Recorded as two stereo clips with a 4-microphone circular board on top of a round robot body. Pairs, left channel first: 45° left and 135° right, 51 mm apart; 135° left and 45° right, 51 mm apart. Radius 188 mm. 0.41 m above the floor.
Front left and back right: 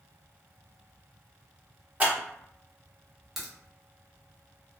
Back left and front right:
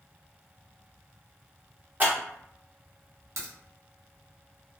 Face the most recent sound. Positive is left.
turn(degrees=-50)